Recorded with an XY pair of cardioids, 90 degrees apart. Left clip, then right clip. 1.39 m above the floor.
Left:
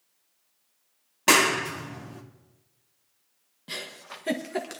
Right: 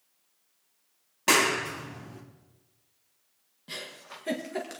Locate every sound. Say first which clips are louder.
1.3 s a clap: left 3 dB; 30° left, 1.7 m
3.7 s a giggle: left 3 dB; 30° left, 1.4 m